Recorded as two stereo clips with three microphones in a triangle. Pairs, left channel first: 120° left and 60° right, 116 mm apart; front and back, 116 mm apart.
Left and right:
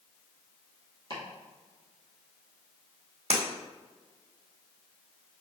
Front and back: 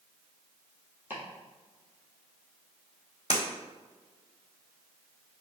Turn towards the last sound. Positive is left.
turn(degrees=-40)